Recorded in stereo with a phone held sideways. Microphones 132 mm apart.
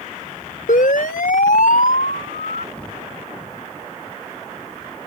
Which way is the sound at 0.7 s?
85° left.